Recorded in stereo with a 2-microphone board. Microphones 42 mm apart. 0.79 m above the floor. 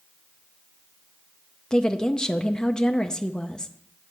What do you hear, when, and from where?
1.7 s a woman speaking: 15° left (ahead or behind), 0.5 m